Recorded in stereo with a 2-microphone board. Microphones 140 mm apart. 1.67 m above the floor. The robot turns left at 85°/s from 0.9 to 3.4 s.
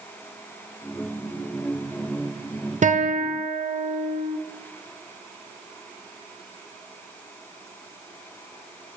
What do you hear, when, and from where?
2.8 s a guitar: 60° right, 0.6 m; by 4.4 s 110° right, 0.6 m